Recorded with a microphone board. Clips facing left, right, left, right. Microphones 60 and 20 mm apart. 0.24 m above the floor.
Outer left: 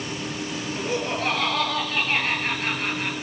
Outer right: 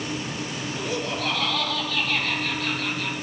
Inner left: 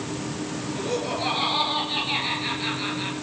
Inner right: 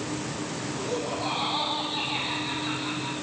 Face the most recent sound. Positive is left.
turn(degrees=35)  # may be behind; listen again after turning